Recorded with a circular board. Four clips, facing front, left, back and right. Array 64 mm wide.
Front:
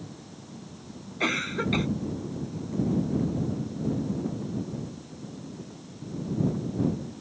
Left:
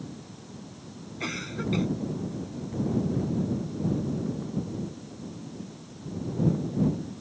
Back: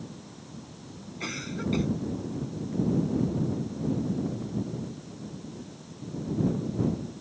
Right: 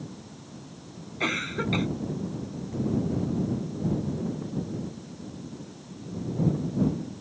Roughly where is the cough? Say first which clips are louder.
Right 4 dB, front 6 dB; ahead right.